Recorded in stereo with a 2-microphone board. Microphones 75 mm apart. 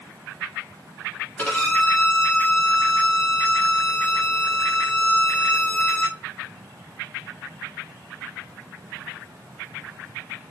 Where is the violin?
15° left (ahead or behind), 1.2 m.